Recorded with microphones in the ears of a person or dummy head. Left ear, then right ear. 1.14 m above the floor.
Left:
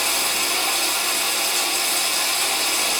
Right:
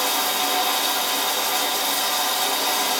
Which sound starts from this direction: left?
Running water, at 0.0 s.